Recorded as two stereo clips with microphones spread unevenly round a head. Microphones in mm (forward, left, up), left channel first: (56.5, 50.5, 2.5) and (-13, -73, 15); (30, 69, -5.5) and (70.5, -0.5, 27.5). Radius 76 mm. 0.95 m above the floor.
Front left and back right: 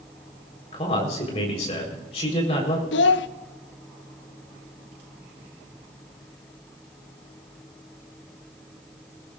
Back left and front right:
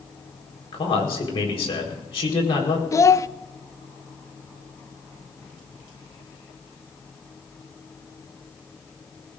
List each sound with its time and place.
0.7 s a man speaking: 115° left, 4.5 m
2.9 s a child speaking: 65° left, 0.7 m